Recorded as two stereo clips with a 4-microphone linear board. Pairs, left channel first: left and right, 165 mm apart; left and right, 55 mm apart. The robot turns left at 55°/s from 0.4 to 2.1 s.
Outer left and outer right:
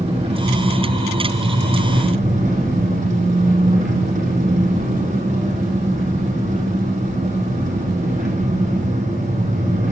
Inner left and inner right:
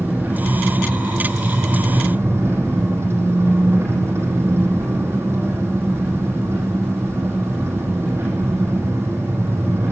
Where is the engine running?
40° right, 6.5 m; by 9.9 s 130° right, 6.5 m.